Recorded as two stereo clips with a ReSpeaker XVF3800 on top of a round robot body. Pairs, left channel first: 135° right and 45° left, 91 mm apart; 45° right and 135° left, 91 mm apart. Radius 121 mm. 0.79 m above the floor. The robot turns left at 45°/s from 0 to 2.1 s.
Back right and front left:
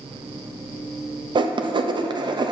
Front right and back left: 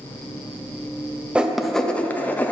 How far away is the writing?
About 0.6 m.